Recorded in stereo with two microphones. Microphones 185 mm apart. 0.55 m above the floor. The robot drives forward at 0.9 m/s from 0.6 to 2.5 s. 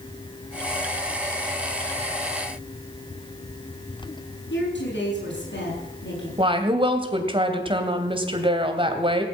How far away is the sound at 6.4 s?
About 2.5 m.